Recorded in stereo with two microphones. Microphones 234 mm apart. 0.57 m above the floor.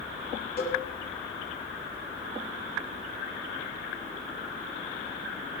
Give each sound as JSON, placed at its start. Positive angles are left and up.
{"t": 0.6, "sound": "a cowbell", "side_deg": 40, "distance_m": 7.0}